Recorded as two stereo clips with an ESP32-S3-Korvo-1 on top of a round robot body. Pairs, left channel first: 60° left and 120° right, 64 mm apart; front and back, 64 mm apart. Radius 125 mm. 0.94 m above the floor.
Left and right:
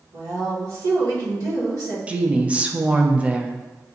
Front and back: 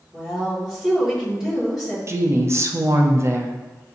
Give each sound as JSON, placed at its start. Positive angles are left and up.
{"t": 0.1, "sound": "a woman speaking", "azimuth_deg": -100, "distance_m": 1.5}
{"t": 2.1, "sound": "a woman speaking", "azimuth_deg": 180, "distance_m": 0.7}